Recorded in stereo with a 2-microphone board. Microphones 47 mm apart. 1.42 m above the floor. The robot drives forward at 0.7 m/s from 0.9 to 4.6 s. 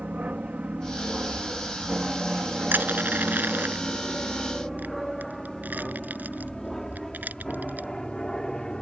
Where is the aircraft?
30° right (ahead or behind); by 8.8 s 15° left (ahead or behind).